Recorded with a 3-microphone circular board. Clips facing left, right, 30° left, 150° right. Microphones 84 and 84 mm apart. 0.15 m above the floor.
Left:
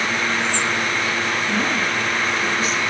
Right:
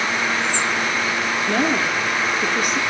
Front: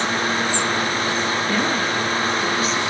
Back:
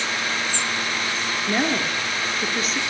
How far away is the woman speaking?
About 3 m.